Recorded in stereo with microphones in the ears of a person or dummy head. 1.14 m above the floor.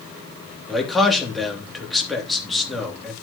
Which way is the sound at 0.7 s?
Centre (ahead or behind).